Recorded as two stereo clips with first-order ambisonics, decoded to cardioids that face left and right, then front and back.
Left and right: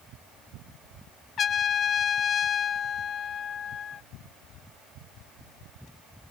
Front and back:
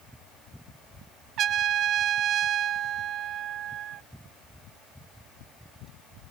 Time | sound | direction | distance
1.4 | a trumpet | 140° left | ?